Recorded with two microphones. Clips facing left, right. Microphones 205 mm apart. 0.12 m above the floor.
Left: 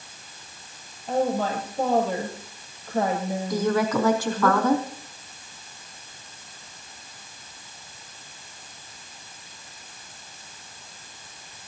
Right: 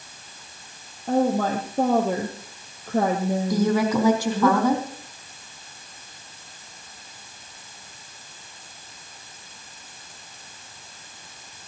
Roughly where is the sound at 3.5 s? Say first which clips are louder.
Right 1 dB; centre.